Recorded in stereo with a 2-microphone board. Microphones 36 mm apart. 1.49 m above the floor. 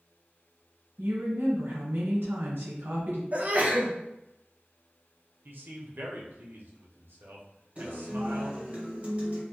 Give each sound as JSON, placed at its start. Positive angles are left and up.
{"t": 1.0, "sound": "a woman speaking", "side_deg": -75, "distance_m": 1.0}
{"t": 3.3, "sound": "a sneeze", "side_deg": -40, "distance_m": 0.6}
{"t": 5.5, "sound": "a man speaking", "side_deg": -65, "distance_m": 0.6}
{"t": 7.8, "sound": "a guitar", "side_deg": -40, "distance_m": 1.3}